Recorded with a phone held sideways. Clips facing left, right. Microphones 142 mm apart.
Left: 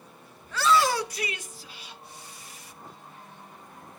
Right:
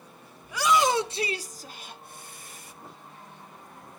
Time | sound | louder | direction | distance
0.4 | a shout | even | 10° right (ahead or behind) | 1.1 m